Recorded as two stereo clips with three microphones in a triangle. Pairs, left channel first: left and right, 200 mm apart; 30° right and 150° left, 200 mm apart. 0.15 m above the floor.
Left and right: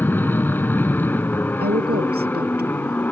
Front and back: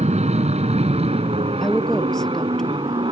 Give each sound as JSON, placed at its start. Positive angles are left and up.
{"t": 0.0, "sound": "an aircraft", "azimuth_deg": 165}
{"t": 1.6, "sound": "a woman speaking", "azimuth_deg": -115}